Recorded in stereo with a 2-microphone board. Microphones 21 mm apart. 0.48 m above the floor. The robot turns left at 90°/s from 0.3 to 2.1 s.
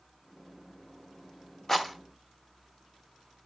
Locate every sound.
1.7 s a rattle: 15° left (ahead or behind), 0.9 m; by 3.5 s 10° right (ahead or behind), 0.9 m